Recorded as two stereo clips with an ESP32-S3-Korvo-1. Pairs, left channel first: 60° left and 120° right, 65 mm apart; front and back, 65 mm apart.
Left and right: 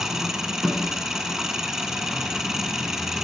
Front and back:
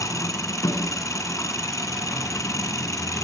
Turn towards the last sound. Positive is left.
turn(degrees=-35)